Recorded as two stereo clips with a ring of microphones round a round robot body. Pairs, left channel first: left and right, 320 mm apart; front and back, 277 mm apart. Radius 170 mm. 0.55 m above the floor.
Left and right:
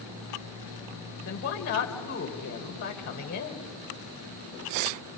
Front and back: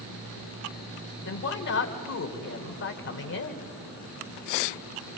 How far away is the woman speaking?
About 2 m.